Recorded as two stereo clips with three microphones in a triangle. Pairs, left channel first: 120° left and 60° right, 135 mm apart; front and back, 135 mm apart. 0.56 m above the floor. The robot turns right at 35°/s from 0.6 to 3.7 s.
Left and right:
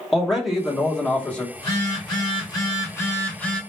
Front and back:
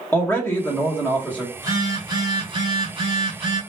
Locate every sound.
0.1 s a man speaking: 30° left, 1.1 m; by 1.4 s 60° left, 1.1 m
1.6 s a phone buzzing: 125° left, 1.3 m; by 3.6 s 160° right, 1.3 m